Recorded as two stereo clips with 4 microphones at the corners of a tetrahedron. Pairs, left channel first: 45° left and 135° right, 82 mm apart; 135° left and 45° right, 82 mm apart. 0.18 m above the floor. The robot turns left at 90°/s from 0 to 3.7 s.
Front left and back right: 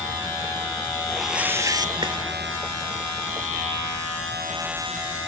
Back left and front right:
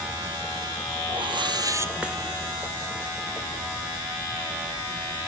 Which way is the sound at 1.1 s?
35° right.